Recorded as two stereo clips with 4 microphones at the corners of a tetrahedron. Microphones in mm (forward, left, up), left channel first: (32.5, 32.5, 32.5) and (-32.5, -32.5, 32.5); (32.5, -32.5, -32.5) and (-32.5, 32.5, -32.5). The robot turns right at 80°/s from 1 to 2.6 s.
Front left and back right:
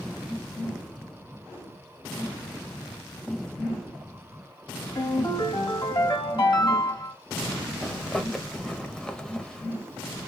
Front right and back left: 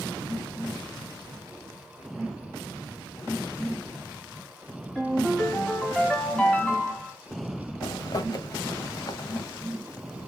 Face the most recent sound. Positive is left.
turn(degrees=-35)